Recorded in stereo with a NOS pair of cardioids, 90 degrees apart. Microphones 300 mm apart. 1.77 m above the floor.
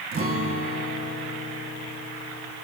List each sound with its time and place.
0.1 s a guitar: 50° right, 1.6 m